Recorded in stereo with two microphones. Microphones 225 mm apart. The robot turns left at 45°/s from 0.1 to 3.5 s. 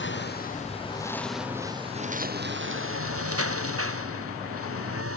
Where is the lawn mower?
55° left (ahead or behind); by 5.2 s 85° right.